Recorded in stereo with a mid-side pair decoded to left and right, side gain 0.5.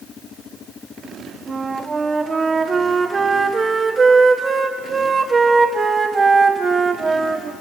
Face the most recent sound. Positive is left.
turn(degrees=-30)